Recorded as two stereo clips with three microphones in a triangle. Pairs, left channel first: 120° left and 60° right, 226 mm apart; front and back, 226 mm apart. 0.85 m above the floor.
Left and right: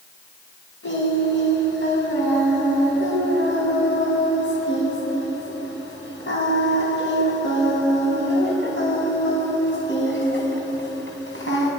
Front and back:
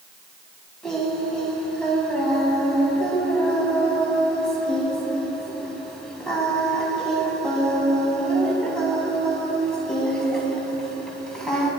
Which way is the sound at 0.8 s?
85° left.